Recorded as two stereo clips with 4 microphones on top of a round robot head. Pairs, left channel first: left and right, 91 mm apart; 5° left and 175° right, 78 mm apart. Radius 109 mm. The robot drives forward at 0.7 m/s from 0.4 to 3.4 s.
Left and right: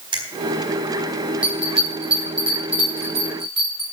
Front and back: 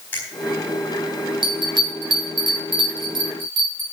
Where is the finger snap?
65° right, 4 m.